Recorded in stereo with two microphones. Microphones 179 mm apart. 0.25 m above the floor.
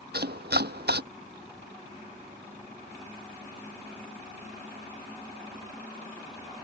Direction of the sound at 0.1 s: 80° right.